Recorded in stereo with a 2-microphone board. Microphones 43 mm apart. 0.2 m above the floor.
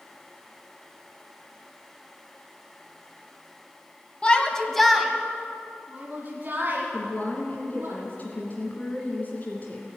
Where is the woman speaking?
40° left (ahead or behind), 1.9 m.